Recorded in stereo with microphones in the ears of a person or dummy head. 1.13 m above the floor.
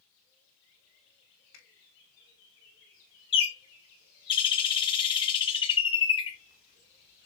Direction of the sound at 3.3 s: 25° left (ahead or behind).